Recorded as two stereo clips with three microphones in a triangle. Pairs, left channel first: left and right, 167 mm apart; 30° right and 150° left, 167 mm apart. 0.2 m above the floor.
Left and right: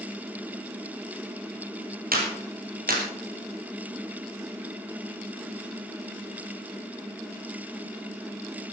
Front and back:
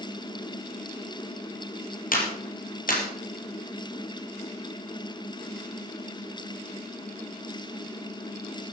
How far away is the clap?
About 3.5 m.